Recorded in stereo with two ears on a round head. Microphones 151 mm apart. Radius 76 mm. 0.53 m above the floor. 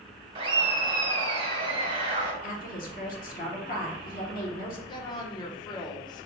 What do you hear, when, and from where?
0.3 s laughter: 30° right (ahead or behind), 1.5 m
2.4 s a woman speaking: 50° left (ahead or behind), 1.1 m
4.9 s a woman speaking: 25° left (ahead or behind), 0.8 m